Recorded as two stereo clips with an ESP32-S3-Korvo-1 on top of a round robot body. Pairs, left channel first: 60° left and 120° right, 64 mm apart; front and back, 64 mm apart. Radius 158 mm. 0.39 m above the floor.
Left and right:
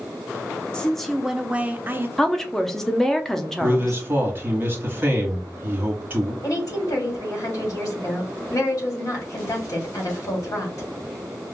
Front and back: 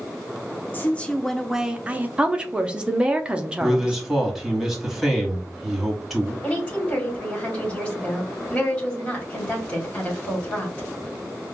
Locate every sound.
0.7 s a woman speaking: straight ahead, 0.8 m; by 2.1 s 140° right, 0.9 m
2.2 s a woman speaking: 135° left, 0.8 m
3.6 s a man speaking: 90° right, 1.8 m
6.4 s a woman speaking: 70° left, 1.8 m